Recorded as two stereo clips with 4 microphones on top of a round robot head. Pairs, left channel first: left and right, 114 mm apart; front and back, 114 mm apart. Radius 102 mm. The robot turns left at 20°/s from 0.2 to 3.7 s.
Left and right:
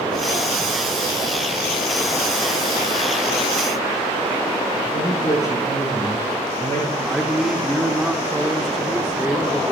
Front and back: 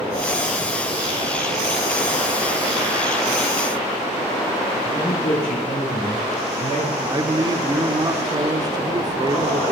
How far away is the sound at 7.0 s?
About 1.0 m.